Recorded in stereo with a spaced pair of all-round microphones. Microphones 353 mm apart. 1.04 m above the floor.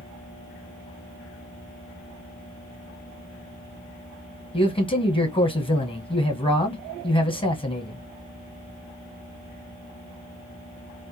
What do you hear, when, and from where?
4.5 s a man speaking: 15° left (ahead or behind), 0.9 m